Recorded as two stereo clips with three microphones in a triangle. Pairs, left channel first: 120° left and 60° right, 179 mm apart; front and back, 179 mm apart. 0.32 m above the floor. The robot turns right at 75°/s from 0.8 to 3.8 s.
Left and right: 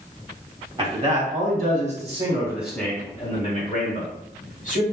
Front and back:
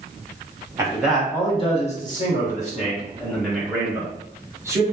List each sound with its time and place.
0.8 s a man speaking: 115° right, 1.7 m; by 4.8 s 110° left, 1.7 m